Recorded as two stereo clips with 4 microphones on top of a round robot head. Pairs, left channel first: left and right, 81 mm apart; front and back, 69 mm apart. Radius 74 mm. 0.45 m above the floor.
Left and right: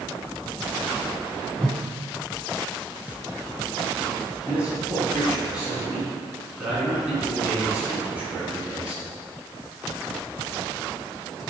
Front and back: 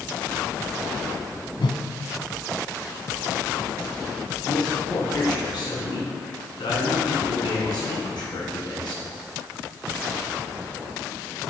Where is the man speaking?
10° right, 5.5 m.